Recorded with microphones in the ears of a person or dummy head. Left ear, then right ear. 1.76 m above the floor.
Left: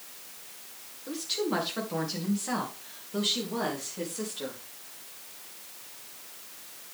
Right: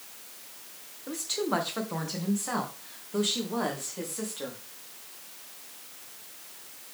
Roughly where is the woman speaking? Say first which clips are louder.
Right 1 dB; right.